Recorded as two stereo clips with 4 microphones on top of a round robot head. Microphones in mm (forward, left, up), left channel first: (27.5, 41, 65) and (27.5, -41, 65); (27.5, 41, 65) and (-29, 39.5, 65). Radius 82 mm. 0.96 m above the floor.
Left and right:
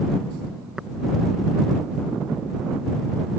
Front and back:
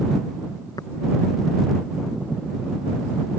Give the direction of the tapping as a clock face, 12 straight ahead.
12 o'clock.